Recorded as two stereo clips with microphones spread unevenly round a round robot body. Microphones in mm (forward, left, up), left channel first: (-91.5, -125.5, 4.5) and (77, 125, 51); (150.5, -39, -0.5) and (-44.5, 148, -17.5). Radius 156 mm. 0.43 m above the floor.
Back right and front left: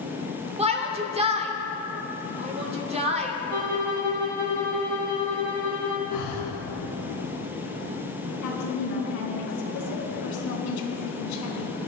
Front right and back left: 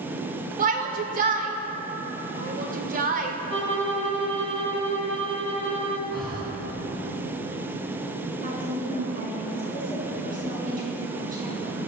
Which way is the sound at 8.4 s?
160° right.